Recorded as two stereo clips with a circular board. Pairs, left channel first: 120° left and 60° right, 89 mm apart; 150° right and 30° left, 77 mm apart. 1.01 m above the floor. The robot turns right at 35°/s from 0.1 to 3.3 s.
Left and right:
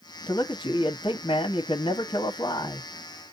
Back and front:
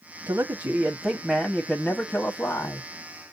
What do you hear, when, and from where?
0.3 s a man speaking: 70° left, 1.0 m; by 2.9 s 160° left, 1.0 m